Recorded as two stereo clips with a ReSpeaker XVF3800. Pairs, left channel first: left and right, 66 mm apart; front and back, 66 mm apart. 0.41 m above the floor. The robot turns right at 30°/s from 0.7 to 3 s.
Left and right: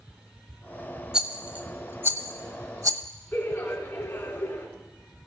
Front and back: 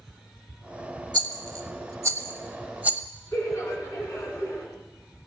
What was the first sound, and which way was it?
A rattle, 165° right.